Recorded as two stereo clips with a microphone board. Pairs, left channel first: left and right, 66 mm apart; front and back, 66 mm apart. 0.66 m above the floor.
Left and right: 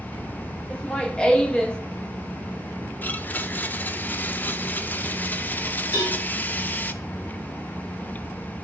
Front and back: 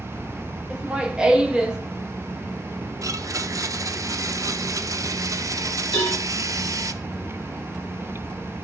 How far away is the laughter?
About 0.9 m.